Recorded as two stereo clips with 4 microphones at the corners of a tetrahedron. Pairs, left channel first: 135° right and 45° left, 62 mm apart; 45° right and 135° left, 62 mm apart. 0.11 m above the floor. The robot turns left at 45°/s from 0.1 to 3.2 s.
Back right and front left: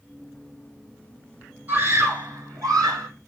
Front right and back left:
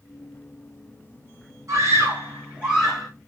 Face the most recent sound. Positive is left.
turn(degrees=40)